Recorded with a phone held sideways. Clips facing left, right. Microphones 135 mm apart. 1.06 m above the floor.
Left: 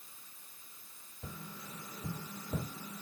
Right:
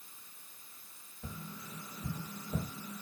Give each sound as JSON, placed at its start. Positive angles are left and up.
{"t": 1.2, "sound": "tapping", "side_deg": 35, "distance_m": 1.3}